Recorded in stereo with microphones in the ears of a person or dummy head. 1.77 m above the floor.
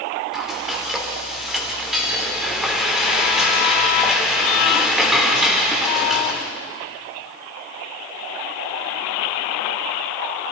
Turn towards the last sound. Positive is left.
turn(degrees=-5)  # may be behind; listen again after turning